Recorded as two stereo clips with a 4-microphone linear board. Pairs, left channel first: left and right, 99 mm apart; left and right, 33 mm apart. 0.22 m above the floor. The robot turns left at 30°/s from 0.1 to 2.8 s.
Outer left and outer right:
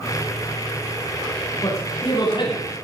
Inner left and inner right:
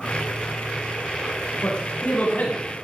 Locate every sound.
1.6 s a man speaking: 30° left (ahead or behind), 3 m; by 2.8 s 60° left (ahead or behind), 3 m